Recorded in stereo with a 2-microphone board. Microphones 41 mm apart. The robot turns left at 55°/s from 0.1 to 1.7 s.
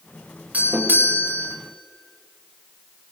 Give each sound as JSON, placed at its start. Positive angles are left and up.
{"t": 0.5, "sound": "a doorbell", "azimuth_deg": -50, "distance_m": 2.5}